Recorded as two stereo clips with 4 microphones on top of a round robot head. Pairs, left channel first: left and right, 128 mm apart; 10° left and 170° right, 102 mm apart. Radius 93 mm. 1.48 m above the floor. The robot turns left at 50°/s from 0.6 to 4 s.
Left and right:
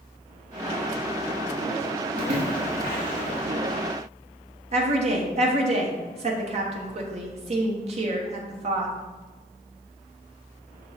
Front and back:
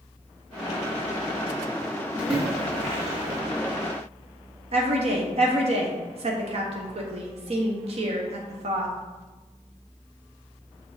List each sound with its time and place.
2.2 s a splash: 85° right, 1.7 m; by 3.4 s 145° right, 1.7 m
4.7 s a woman speaking: 135° right, 1.2 m